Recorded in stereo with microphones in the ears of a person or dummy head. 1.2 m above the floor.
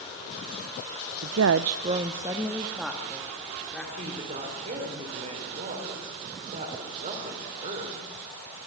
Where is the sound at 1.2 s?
70° right (ahead or behind), 0.6 m; by 3.8 s 5° left (ahead or behind), 3 m.